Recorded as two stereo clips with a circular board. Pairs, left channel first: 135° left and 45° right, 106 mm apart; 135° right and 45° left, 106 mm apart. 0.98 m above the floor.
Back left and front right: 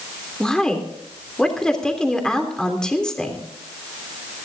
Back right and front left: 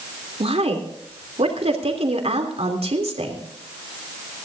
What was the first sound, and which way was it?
A woman speaking, 50° left.